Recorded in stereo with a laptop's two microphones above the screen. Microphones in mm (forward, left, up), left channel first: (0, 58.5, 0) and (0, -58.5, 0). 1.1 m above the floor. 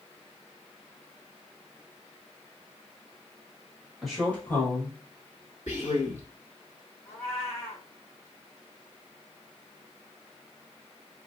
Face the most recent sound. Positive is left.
turn(degrees=-30)  # may be behind; listen again after turning